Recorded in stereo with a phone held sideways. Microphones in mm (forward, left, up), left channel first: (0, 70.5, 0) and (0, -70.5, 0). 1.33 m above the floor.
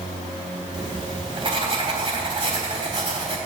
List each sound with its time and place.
0.7 s writing: 35° right (ahead or behind), 3.5 m